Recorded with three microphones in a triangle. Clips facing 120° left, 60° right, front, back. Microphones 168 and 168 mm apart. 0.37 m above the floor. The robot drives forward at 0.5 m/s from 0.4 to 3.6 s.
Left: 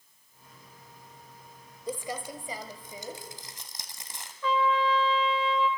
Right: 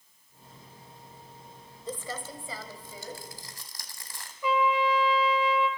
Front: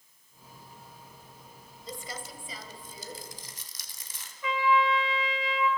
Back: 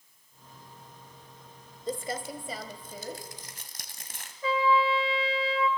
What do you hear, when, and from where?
1.9 s crumpling: 165° right, 1.1 m; by 4.3 s 175° right, 1.9 m
4.4 s a trumpet: 135° right, 2 m